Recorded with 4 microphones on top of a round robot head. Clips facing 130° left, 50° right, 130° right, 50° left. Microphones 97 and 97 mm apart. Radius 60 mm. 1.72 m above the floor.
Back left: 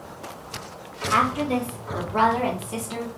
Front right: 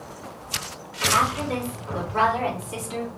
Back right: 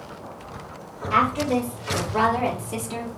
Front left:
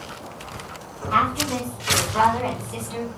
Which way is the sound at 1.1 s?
165° right.